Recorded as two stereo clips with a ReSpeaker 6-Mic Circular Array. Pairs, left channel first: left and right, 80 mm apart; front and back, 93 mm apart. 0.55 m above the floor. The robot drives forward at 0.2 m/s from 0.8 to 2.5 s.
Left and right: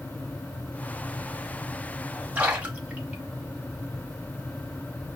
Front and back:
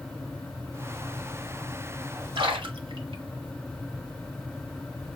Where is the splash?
160° right, 1.2 m.